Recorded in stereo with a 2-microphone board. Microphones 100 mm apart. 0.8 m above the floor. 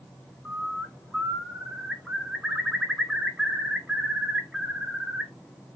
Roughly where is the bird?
Centre.